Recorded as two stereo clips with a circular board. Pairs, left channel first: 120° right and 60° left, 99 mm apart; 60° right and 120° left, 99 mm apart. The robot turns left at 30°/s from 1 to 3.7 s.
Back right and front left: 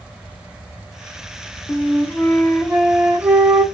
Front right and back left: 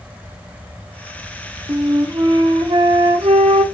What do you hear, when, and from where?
1.7 s a flute: straight behind, 1.6 m; by 3.6 s 120° left, 1.6 m